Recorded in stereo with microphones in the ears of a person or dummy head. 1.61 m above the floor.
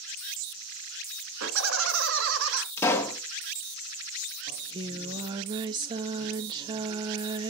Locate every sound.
1.4 s laughter: 80° right, 2.5 m
2.8 s a pop: 15° left (ahead or behind), 1.3 m
4.5 s singing: 25° right (ahead or behind), 0.9 m